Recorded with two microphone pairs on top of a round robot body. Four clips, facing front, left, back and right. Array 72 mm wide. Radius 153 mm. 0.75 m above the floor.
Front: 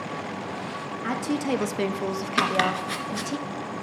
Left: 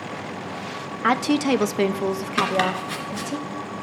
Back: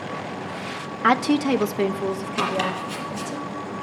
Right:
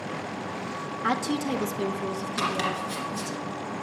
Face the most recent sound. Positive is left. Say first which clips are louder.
# left 6 dB, front 2 dB
turn(degrees=40)